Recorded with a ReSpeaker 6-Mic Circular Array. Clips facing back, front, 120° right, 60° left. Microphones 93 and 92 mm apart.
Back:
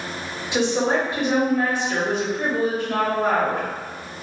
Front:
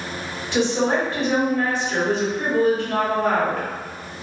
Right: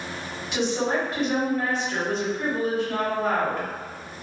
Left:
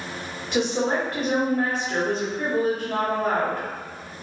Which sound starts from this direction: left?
A woman speaking, at 0.5 s.